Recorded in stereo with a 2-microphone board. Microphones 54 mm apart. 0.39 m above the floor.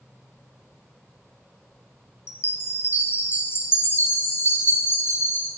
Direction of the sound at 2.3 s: 45° left (ahead or behind).